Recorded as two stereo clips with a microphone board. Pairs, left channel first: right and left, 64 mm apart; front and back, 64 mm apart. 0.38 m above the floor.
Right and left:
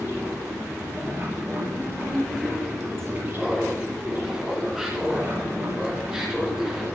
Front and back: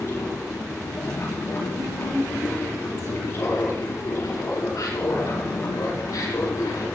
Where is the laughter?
10° left, 4 m.